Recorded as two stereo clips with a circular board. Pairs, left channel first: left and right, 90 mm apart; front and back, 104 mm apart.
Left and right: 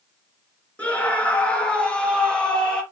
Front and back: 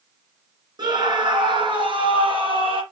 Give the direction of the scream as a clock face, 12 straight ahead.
7 o'clock.